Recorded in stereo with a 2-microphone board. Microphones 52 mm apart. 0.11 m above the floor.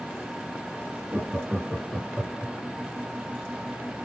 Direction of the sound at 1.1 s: 25° right (ahead or behind).